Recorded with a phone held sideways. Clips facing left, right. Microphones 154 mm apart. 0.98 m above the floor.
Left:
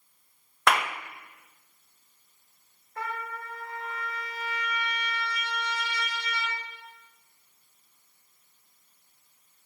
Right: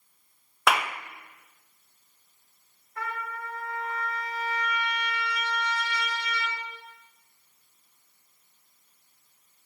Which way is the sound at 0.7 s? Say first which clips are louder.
Even; 5° right (ahead or behind).